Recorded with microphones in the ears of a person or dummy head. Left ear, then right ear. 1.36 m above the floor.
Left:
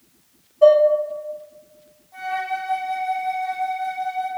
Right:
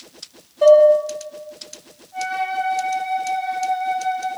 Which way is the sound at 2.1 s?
20° left (ahead or behind).